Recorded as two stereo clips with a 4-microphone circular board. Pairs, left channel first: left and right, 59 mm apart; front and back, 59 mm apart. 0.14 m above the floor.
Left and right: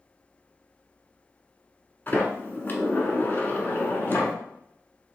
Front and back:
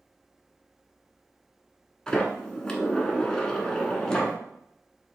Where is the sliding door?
70° left, 0.9 m.